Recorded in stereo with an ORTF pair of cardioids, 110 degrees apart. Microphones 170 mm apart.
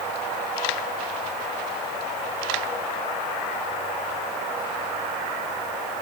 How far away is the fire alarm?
I don't hear a fire alarm.